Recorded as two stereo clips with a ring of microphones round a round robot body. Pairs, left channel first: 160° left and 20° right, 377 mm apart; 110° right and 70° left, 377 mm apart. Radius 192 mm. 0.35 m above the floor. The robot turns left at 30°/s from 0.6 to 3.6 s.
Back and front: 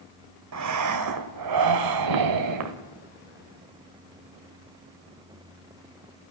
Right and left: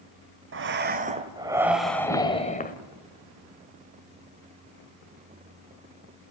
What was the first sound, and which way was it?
Breathing, 15° left.